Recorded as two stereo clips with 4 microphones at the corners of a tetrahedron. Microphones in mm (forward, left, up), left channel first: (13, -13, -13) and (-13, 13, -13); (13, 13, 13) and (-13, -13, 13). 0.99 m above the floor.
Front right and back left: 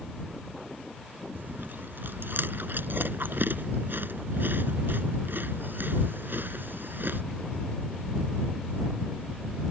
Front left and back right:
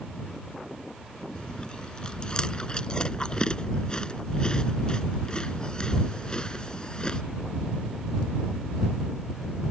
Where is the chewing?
110° left.